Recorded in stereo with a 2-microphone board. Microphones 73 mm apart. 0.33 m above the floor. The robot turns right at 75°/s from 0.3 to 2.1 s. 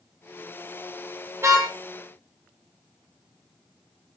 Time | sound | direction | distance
1.4 | a car horn | 35° right (ahead or behind) | 6.5 m